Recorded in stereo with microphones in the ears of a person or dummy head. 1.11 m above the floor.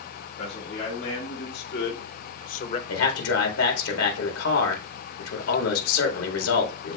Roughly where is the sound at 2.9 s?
Left.